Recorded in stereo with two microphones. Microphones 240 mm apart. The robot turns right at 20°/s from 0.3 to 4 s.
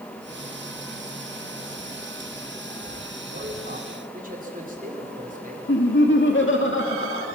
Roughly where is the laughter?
Left.